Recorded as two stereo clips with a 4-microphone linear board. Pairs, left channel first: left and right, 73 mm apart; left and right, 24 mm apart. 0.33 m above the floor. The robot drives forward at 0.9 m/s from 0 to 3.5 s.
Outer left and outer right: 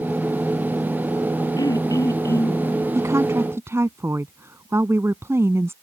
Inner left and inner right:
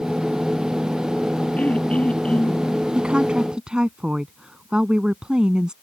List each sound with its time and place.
1.6 s throat clearing: 60° left (ahead or behind); by 2.7 s 40° left (ahead or behind)
3.0 s a woman speaking: 45° right (ahead or behind); by 5.7 s 40° right (ahead or behind)